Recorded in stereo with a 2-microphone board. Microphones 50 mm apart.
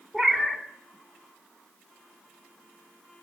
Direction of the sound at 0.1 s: 5° right (ahead or behind).